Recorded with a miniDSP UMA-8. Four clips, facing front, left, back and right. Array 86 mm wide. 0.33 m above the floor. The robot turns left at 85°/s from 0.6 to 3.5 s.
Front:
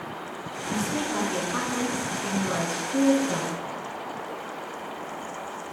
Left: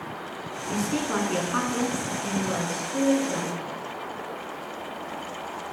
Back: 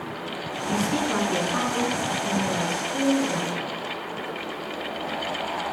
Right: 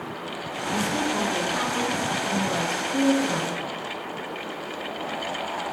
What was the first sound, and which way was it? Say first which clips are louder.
A woman speaking: right 1 dB, back 3 dB; 165° left.